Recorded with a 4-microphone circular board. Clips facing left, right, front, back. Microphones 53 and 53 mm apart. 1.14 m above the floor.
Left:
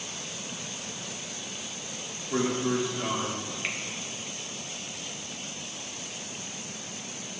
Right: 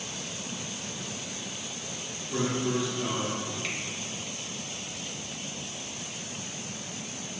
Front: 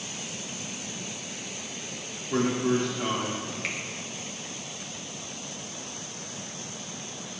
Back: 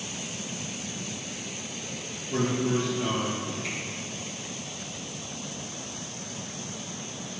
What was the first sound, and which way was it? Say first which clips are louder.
A man speaking: left 2 dB, front 1 dB; 40° left.